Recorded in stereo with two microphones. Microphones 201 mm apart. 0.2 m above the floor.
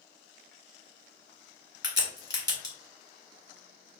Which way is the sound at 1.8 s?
60° left (ahead or behind).